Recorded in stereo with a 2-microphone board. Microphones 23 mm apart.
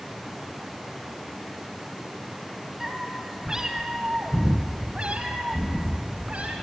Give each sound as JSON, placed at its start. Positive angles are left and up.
{"t": 2.8, "sound": "a cat meowing", "side_deg": -10, "distance_m": 3.0}